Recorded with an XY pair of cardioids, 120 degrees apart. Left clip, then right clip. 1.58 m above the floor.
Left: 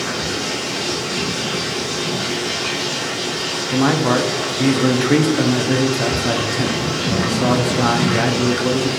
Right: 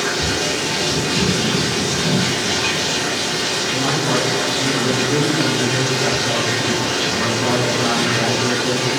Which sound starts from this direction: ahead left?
A man speaking, at 3.7 s.